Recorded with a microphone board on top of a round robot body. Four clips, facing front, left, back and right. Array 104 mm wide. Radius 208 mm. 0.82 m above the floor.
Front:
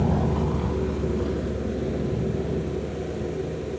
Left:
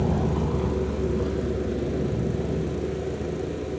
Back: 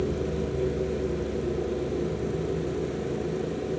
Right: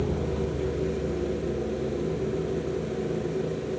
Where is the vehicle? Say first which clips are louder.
Left 3 dB, front 4 dB; 25° left; by 3.8 s 50° left.